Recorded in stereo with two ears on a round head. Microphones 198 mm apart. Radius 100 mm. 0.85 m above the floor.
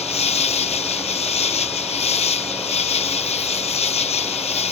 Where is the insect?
30° left (ahead or behind).